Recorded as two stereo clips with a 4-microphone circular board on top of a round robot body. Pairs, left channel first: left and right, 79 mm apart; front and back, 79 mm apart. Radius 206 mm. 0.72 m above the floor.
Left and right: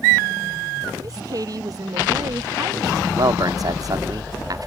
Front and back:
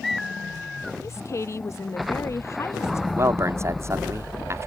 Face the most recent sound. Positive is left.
turn(degrees=-125)